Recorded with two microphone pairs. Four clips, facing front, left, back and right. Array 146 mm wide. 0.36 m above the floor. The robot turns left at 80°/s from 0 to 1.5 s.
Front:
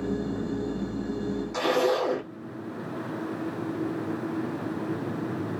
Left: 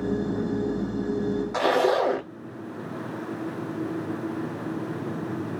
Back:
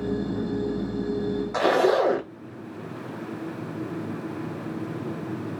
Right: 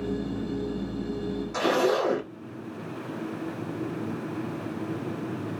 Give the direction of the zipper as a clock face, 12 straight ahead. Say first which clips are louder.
Left 2 dB, back 4 dB; 7 o'clock.